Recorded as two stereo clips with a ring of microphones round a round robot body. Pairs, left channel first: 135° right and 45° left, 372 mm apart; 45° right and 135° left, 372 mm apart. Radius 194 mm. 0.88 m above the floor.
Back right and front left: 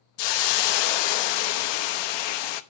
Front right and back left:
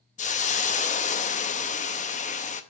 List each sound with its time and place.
0.2 s a hiss: 115° right, 0.8 m